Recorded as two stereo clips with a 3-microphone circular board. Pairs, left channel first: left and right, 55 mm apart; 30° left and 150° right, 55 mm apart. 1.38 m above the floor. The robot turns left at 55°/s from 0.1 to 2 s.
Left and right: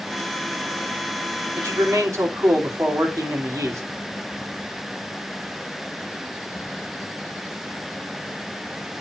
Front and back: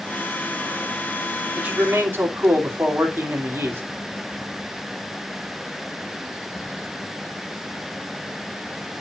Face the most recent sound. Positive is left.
turn(degrees=-105)